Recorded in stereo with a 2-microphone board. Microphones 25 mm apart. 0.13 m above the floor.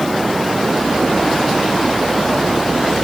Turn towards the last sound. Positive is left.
No sound to turn to.